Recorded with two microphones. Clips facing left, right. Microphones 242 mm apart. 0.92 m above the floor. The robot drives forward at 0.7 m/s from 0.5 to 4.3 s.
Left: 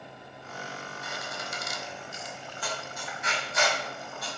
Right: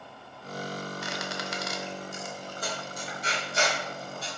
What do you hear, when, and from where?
1.0 s a squeak: 85° right, 1.1 m; by 4.3 s 25° right (ahead or behind), 2.5 m